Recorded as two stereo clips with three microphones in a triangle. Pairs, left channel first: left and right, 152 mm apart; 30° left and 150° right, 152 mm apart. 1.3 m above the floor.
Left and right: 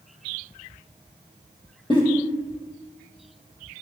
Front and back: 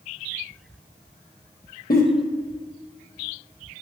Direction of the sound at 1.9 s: 35° left.